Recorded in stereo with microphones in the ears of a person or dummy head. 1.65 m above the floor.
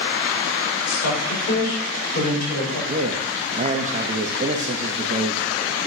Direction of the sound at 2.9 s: 35° right (ahead or behind).